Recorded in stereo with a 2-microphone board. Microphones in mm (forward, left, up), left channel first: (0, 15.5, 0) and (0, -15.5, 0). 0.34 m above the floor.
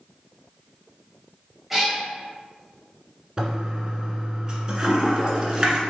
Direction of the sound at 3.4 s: 25° right (ahead or behind).